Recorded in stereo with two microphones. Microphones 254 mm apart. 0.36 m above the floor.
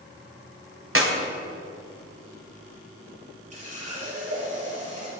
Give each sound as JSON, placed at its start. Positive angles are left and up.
{"t": 0.9, "sound": "a clap", "side_deg": -55, "distance_m": 1.7}
{"t": 3.5, "sound": "a running tap", "side_deg": -80, "distance_m": 4.5}